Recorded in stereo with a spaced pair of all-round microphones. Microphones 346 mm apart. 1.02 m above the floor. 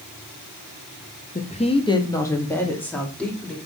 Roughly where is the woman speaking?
Left.